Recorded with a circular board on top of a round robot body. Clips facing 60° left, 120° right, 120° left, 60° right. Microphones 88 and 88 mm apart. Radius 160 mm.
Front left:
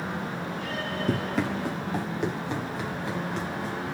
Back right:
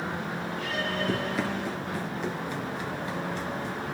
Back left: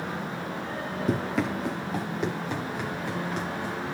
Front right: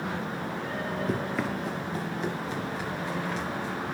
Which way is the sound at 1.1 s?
105° left.